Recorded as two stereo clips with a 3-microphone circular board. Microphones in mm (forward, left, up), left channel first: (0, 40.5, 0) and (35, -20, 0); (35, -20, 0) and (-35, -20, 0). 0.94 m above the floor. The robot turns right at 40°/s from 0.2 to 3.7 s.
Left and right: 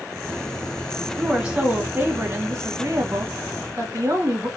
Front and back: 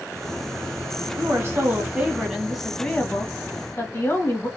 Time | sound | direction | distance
1.2 | a woman speaking | 145° right | 1.3 m